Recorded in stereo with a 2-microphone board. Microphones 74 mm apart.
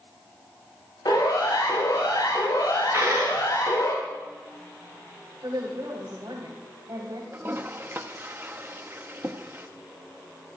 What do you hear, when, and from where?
1.1 s a siren: 80° left, 6.5 m; by 3.9 s 60° left (ahead or behind), 5 m
2.9 s a dropped coin: 35° right (ahead or behind), 6.5 m
5.4 s a woman speaking: 80° right, 5.5 m
7.3 s a toilet flushing: 35° right (ahead or behind), 1.0 m